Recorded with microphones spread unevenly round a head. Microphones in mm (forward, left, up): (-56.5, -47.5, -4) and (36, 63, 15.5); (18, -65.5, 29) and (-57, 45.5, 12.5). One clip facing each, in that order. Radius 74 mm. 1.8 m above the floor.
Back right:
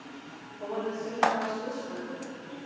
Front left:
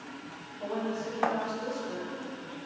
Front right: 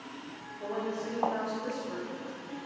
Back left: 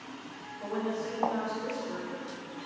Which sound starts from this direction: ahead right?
A woman speaking, at 0.6 s.